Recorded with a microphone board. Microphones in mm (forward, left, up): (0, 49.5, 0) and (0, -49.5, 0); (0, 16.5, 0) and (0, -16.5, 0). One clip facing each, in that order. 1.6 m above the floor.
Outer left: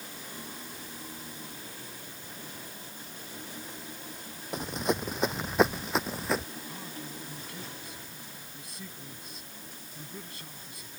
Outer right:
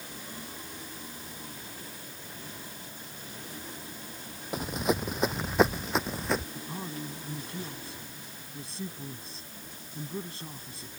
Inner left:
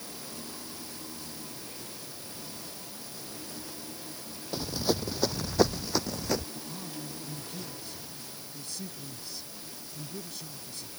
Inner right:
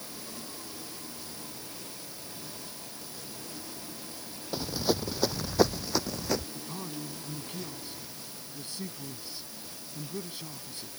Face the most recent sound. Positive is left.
turn(degrees=-30)  # may be behind; listen again after turning